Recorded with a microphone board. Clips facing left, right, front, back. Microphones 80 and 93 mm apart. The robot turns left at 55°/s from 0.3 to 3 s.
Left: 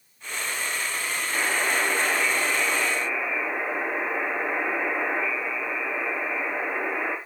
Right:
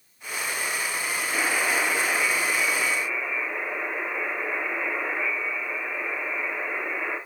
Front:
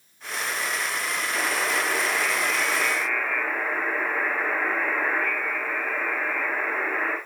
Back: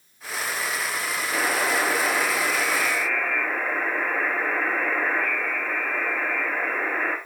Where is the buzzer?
175° right, 7.5 m; by 7.2 s 95° left, 7.5 m.